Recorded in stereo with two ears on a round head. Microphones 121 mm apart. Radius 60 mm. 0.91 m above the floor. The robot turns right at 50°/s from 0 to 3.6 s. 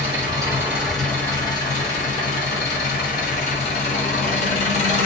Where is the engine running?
45° right, 1.0 m; by 5.1 s 135° left, 1.0 m.